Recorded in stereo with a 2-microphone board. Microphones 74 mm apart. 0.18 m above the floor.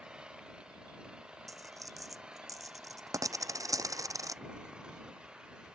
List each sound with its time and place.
0.0 s an engine running: 10° right (ahead or behind)
1.5 s a dropped coin: 50° right (ahead or behind)